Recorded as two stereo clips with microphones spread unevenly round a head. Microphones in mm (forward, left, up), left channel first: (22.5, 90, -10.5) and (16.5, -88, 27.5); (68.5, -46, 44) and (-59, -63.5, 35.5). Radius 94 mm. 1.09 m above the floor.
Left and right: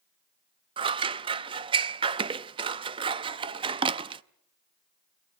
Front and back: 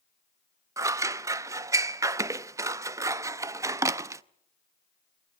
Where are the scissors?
115° right, 0.5 m.